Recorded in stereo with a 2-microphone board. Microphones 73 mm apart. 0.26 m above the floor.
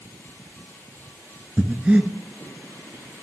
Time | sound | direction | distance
1.6 | breathing | 15° right (ahead or behind) | 0.8 m